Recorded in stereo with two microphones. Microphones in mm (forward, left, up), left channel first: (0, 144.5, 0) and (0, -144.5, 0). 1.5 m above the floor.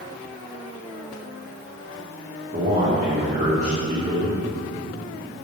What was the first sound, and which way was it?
A man speaking, 25° right (ahead or behind).